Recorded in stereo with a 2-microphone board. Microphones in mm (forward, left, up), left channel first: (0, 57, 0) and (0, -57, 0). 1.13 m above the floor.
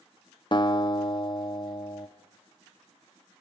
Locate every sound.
0.5 s a guitar: 40° left (ahead or behind), 0.8 m